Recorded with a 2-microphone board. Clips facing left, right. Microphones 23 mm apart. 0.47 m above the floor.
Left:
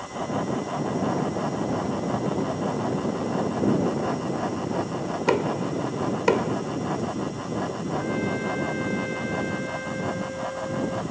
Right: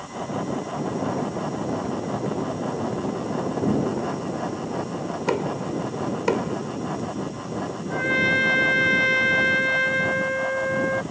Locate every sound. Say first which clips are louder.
5.3 s knocking: left 2 dB; 15° left (ahead or behind)
7.9 s a trumpet: right 9 dB; 70° right (ahead or behind)